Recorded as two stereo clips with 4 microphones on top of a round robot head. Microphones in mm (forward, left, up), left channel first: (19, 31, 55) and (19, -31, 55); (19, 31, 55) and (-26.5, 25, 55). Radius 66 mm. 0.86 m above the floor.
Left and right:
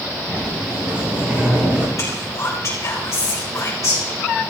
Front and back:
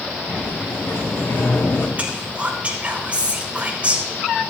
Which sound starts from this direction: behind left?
Whispering, at 2.0 s.